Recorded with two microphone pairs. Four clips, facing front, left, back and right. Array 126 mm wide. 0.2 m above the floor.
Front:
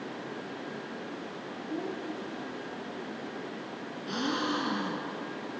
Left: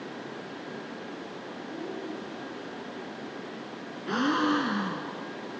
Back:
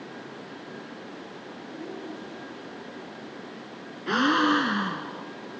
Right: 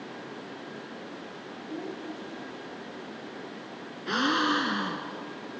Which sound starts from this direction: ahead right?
A child speaking, at 1.7 s.